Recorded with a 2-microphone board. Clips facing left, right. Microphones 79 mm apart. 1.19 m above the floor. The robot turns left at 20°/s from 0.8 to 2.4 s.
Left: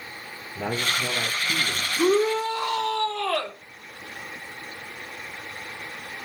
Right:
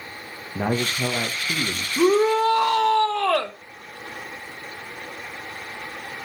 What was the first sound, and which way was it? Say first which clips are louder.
A man speaking: right 3 dB; 60° right (ahead or behind).